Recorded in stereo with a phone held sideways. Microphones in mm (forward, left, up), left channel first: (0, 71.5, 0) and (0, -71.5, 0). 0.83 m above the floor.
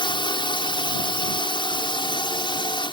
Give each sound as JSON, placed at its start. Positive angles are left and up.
{"t": 0.0, "sound": "a drone", "side_deg": 35}